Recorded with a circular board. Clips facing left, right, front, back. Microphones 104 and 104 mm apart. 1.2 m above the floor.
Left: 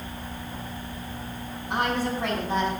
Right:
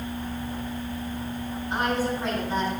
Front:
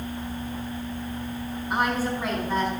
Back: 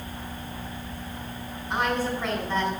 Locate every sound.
1.7 s a woman speaking: 85° left, 6.5 m